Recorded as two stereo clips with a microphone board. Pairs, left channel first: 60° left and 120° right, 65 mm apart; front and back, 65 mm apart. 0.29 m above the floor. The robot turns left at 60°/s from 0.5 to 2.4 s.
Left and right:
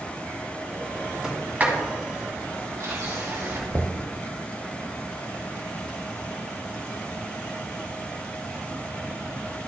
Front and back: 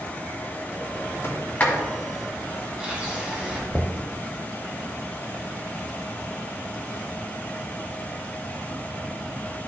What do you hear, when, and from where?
1.2 s a sliding door: 40° right, 2.5 m; by 3.6 s 110° right, 2.5 m
3.7 s knocking: 135° right, 0.8 m